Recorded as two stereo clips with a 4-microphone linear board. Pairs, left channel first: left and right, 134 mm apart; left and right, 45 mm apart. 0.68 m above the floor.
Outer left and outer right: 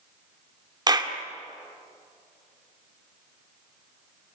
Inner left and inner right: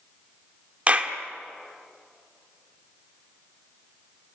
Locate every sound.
0.9 s a clap: 30° right (ahead or behind), 1.7 m